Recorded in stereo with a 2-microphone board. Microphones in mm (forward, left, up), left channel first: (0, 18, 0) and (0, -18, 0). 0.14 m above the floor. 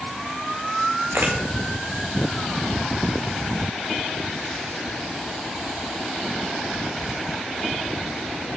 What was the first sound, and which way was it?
A camera shutter, 85° right.